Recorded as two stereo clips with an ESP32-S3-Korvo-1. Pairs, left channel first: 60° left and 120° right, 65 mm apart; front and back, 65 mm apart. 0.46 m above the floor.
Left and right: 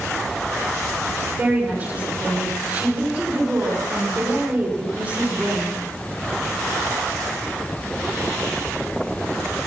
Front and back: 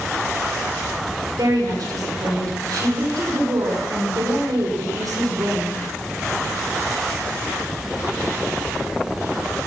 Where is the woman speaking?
Straight behind, 5.5 m.